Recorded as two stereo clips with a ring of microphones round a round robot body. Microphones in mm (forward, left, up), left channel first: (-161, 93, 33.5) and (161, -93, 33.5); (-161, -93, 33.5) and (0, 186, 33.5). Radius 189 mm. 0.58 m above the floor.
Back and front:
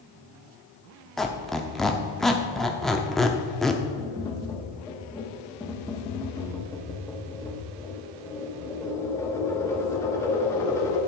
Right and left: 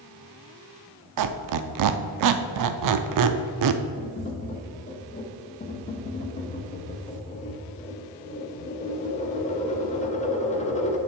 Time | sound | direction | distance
1.2 | a squeak | 60° left | 0.5 m
4.0 | tapping | 140° right | 1.1 m